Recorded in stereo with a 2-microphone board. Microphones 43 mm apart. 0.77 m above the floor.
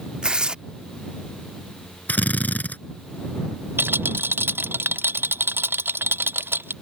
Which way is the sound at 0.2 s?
20° right (ahead or behind).